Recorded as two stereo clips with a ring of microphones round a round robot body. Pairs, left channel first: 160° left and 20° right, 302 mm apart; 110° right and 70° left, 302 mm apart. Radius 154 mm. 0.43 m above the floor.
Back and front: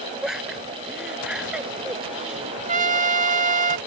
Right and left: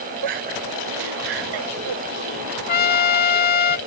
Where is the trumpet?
75° right.